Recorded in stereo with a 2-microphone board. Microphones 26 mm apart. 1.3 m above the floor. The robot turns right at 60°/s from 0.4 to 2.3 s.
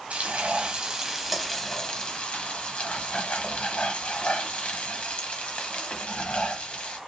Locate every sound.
0.1 s frying: 60° right, 0.7 m; by 7.0 s 55° left, 0.7 m